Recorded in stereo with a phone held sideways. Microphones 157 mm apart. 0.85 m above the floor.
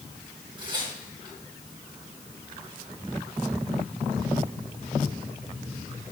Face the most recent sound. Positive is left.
turn(degrees=-30)  # may be behind; listen again after turning